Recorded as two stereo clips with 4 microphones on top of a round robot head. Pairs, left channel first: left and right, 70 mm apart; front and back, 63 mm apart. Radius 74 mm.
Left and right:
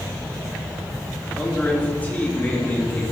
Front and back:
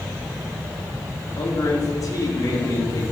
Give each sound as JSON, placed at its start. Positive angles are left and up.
{"t": 1.4, "sound": "a man speaking", "azimuth_deg": 25, "distance_m": 2.5}